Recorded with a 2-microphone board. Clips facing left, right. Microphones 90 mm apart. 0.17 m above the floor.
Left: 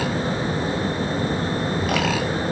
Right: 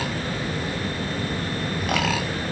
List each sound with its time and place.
Only background noise.